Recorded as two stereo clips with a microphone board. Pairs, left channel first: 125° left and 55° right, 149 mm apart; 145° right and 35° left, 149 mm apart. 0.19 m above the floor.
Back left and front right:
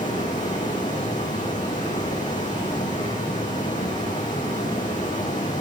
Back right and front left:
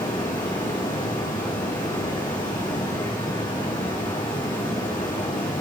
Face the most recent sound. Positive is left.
turn(degrees=155)